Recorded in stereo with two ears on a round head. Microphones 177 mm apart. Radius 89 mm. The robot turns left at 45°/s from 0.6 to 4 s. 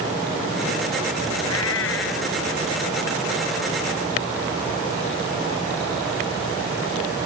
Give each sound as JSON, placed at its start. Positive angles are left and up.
{"t": 1.4, "sound": "a cat meowing", "azimuth_deg": 85}